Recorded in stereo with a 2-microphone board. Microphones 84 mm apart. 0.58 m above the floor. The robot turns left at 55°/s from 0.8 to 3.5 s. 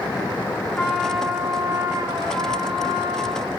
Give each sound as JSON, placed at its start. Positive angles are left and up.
{"t": 0.8, "sound": "a trumpet", "azimuth_deg": 15, "distance_m": 5.0}